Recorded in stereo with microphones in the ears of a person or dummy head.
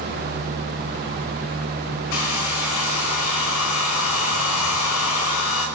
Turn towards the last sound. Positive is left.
turn(degrees=85)